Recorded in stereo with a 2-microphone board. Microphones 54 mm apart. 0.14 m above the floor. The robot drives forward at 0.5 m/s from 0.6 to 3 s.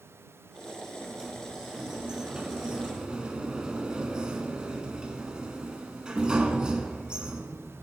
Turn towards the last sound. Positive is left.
turn(degrees=-15)  # may be behind; listen again after turning